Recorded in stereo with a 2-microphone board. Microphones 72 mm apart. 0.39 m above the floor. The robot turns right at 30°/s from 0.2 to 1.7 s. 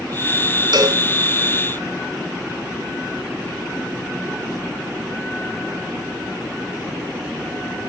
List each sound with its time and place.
0.7 s a cowbell: 75° right (ahead or behind), 2.5 m